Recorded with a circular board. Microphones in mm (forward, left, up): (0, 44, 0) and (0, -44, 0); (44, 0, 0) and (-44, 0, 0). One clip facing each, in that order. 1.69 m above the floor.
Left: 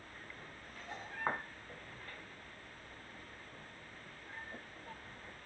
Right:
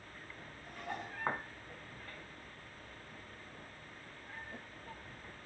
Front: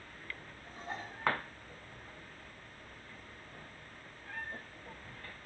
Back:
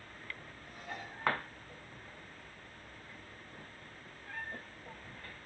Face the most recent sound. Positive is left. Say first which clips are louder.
# right 6 dB, front 3 dB
turn(degrees=-60)